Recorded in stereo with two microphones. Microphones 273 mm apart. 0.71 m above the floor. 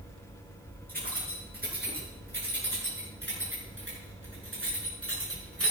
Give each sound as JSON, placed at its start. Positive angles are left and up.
{"t": 0.9, "sound": "keys jangling", "side_deg": -30, "distance_m": 8.0}